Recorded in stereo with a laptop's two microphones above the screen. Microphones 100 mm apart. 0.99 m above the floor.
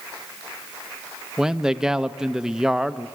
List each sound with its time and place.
1.4 s a man speaking: 5° right (ahead or behind), 0.7 m